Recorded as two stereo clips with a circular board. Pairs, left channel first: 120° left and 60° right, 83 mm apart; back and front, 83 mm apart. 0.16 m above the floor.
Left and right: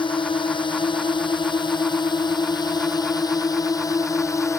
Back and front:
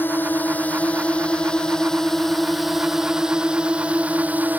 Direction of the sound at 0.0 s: 115° left.